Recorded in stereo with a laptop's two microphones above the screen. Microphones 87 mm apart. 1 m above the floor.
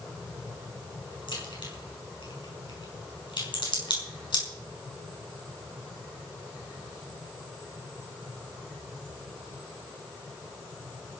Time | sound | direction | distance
1.3 | a crack | 65° left (ahead or behind) | 5.5 m